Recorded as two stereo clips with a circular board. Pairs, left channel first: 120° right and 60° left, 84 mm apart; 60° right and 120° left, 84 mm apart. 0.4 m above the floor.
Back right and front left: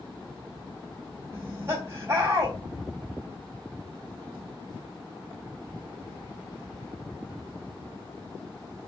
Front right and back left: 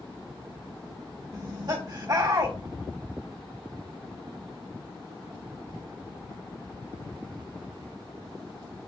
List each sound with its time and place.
1.3 s laughter: 110° left, 2 m